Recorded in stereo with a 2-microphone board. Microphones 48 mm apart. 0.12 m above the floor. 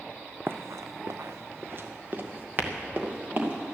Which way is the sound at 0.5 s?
50° right (ahead or behind).